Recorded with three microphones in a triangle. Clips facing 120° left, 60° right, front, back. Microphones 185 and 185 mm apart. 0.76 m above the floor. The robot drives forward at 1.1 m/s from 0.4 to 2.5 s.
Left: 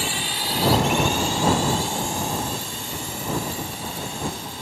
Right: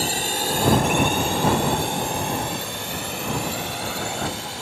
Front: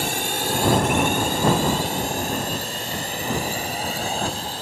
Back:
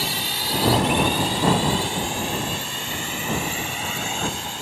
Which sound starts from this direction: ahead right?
A drone, at 0.0 s.